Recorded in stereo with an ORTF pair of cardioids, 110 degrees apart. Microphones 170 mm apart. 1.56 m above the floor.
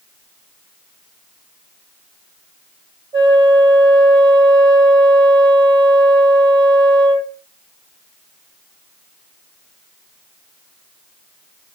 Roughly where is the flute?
Ahead right.